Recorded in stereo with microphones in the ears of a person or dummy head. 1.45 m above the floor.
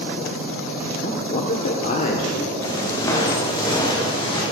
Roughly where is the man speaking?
Left.